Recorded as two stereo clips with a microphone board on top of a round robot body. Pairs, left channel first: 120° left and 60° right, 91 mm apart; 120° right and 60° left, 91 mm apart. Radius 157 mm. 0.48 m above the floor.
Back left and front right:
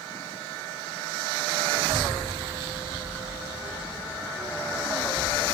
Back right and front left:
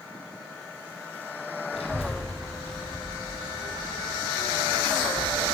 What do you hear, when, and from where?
1.7 s a child speaking: 130° right, 2.5 m; by 5.5 s 125° right, 4.5 m